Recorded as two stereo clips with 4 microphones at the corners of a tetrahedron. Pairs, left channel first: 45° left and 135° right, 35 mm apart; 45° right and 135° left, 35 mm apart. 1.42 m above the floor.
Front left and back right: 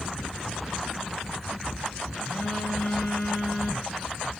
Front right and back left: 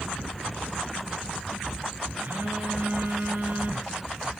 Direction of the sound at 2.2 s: 110° left.